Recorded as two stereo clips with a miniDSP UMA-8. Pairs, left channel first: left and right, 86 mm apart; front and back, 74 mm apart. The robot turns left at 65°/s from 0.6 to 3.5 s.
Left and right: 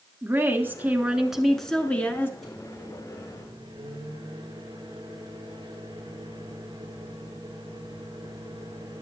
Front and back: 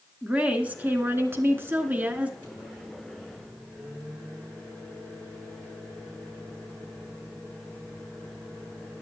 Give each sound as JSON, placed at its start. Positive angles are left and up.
{"t": 0.2, "sound": "a woman speaking", "azimuth_deg": -125, "distance_m": 1.1}
{"t": 2.4, "sound": "a microwave", "azimuth_deg": 0, "distance_m": 6.5}